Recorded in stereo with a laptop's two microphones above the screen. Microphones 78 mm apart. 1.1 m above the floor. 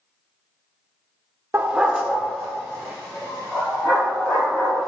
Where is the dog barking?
30° right (ahead or behind), 0.9 m; by 4.9 s 20° left (ahead or behind), 5 m.